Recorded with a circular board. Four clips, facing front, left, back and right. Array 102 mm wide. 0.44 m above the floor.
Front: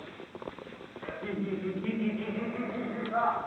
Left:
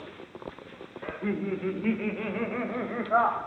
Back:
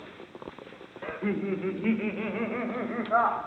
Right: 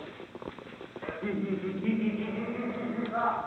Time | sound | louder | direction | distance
1.0 | laughter | left 2 dB, back 5 dB | 175° left | 1.0 m